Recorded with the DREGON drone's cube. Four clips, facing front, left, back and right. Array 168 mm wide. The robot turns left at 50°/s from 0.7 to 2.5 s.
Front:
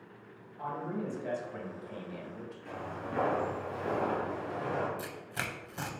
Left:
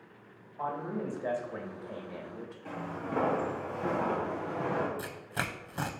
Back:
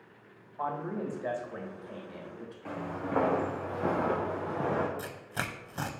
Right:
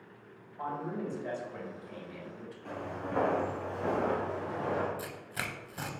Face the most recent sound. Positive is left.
turn(degrees=130)